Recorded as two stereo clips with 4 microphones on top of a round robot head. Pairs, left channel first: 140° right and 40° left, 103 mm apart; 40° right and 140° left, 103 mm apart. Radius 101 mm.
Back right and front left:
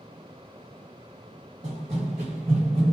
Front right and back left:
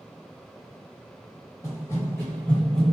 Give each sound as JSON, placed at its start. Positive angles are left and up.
{"t": 1.6, "sound": "running footsteps", "azimuth_deg": 25, "distance_m": 1.1}